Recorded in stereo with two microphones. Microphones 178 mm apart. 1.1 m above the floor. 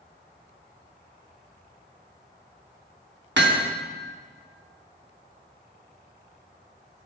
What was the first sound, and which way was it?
Hammering, 80° right.